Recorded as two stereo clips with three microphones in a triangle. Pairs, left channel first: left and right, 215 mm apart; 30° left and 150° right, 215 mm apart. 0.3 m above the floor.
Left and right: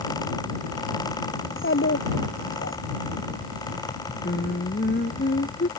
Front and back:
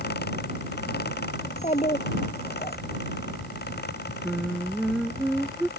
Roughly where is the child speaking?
Left.